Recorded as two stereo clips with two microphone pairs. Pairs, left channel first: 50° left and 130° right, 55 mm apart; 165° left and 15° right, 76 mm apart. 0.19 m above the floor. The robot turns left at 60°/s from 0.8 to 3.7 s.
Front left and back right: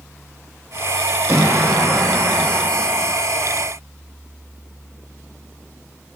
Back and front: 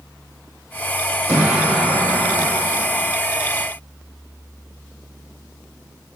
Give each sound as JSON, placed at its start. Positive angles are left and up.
{"t": 1.3, "sound": "an explosion", "azimuth_deg": -80, "distance_m": 5.0}